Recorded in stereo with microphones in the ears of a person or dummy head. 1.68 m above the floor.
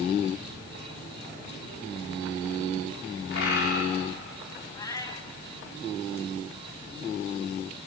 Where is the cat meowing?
20° left (ahead or behind), 1.7 m.